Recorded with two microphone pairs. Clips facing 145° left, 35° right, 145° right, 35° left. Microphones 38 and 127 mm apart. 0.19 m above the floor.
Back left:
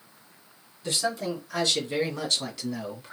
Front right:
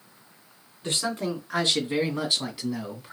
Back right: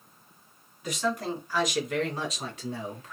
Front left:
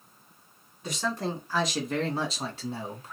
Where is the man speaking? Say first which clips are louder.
Even, back right 1 dB; 15° right, 2 m; by 3.1 s 50° left, 1.6 m.